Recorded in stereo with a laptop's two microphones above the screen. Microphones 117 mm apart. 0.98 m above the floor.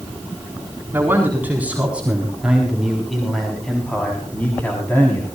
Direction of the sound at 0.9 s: 15° right (ahead or behind).